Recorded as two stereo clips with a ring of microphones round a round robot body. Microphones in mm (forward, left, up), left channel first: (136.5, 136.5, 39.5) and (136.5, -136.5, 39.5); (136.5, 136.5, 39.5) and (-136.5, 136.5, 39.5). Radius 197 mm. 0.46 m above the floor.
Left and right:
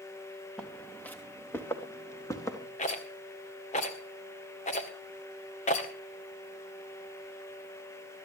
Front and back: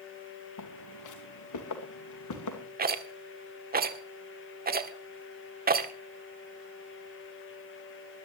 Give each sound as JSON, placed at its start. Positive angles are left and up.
{"t": 0.6, "sound": "footsteps", "azimuth_deg": 5, "distance_m": 2.5}
{"t": 2.8, "sound": "a rattle", "azimuth_deg": 140, "distance_m": 1.7}